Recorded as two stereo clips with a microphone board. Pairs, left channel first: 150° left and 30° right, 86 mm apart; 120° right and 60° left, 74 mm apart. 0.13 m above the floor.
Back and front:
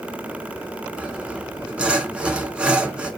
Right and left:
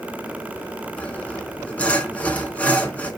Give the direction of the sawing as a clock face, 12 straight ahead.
3 o'clock.